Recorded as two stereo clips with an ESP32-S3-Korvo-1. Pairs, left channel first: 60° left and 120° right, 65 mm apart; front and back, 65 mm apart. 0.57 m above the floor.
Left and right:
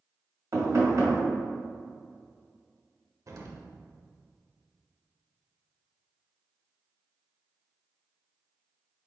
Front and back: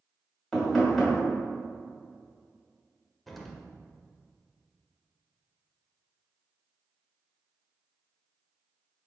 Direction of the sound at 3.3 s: 90° right.